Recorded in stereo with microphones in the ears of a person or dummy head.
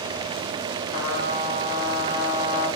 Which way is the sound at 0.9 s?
60° left (ahead or behind).